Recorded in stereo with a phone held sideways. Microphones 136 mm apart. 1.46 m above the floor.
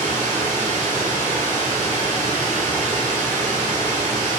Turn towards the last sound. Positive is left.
turn(degrees=-70)  # may be behind; listen again after turning